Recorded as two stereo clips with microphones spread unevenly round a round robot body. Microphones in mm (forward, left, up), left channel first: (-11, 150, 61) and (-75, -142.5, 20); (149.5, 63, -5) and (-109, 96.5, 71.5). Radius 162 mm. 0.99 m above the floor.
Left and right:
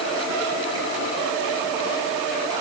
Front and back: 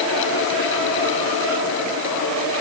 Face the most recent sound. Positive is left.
No sound to turn to.